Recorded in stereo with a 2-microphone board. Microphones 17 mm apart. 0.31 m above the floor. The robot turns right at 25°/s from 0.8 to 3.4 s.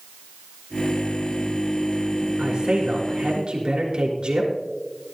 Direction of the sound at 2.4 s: 75° right (ahead or behind).